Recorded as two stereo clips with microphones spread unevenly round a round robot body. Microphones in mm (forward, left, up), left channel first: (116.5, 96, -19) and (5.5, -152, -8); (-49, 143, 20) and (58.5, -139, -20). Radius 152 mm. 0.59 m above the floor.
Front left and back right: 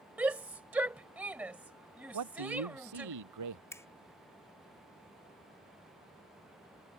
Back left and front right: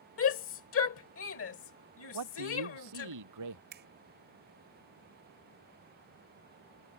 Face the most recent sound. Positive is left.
turn(degrees=-15)